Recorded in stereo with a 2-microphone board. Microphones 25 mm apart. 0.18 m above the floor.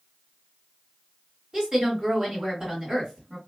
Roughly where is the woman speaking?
Right.